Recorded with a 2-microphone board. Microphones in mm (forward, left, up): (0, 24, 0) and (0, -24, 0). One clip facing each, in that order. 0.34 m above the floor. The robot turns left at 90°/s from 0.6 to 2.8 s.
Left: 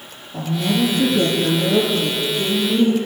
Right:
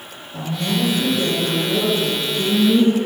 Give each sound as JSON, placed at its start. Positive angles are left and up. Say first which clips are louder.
{"t": 0.3, "sound": "a woman speaking", "louder": "left 2 dB", "azimuth_deg": 180, "distance_m": 4.5}